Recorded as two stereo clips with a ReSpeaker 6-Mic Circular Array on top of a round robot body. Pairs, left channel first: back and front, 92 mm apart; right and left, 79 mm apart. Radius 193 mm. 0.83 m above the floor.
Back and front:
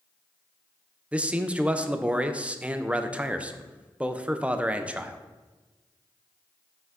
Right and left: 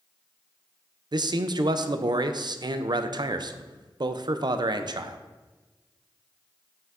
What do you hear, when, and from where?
1.1 s a man speaking: 75° left, 0.6 m